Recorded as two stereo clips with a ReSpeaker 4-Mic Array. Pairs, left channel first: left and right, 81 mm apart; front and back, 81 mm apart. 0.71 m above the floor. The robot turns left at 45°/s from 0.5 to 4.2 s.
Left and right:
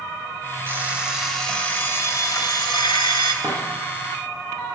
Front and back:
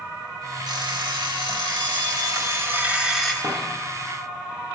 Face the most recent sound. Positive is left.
turn(degrees=125)